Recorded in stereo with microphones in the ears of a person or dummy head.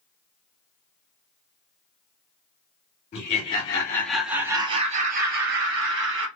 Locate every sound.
3.1 s laughter: 40° left (ahead or behind), 1.0 m; by 6.3 s 65° right (ahead or behind), 1.3 m